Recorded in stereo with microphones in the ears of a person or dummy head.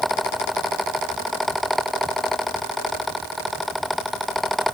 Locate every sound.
Only background noise.